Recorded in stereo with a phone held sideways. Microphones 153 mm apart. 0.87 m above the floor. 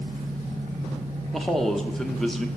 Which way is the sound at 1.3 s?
5° left (ahead or behind).